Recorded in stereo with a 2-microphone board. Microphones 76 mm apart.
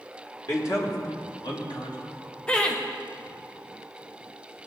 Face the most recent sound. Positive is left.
turn(degrees=15)  # may be behind; listen again after turning